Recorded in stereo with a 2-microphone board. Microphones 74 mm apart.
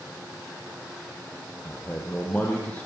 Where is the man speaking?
20° left (ahead or behind), 5.5 m.